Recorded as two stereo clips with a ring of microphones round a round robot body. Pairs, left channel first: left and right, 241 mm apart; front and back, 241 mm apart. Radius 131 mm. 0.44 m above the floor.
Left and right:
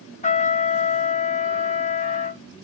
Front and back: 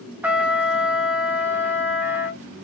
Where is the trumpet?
105° left, 1.0 m.